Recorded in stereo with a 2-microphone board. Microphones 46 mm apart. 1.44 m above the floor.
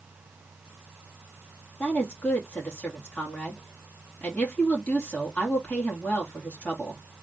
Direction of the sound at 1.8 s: 40° left (ahead or behind).